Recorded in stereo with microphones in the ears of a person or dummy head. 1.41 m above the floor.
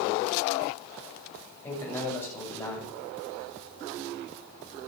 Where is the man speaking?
20° left (ahead or behind), 8 m.